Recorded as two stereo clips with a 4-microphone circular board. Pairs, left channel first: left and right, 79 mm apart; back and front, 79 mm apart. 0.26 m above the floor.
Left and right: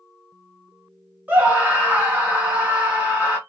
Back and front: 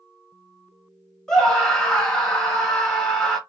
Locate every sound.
1.3 s a scream: 115° right, 1.1 m